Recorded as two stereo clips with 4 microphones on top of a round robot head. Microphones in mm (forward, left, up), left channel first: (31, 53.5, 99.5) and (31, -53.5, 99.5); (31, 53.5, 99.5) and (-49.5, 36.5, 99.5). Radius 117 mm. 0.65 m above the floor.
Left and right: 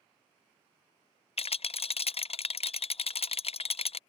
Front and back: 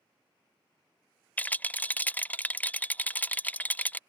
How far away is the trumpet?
No trumpet in this recording.